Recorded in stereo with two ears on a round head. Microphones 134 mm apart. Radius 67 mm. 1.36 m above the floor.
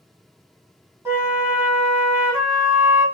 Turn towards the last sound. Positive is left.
turn(degrees=-15)  # may be behind; listen again after turning